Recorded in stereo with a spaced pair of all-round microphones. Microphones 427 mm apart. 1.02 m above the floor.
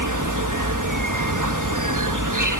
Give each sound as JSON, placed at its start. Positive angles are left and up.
{"t": 0.0, "sound": "an insect", "side_deg": -45}